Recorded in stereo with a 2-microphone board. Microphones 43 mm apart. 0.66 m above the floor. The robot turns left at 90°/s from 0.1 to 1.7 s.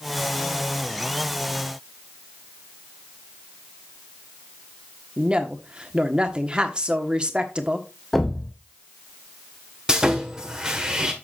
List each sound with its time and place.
5.2 s a woman speaking: 25° right (ahead or behind), 1.2 m
8.1 s a thud: 5° left (ahead or behind), 1.2 m
9.9 s sawing: 15° right (ahead or behind), 1.6 m